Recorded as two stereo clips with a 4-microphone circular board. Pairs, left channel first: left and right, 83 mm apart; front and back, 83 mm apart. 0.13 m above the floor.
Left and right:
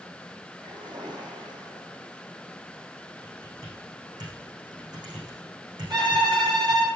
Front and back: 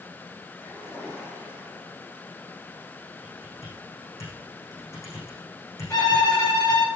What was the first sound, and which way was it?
A splash, 60° right.